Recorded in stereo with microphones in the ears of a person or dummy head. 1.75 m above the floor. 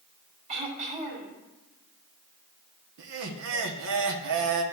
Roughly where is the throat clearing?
Right.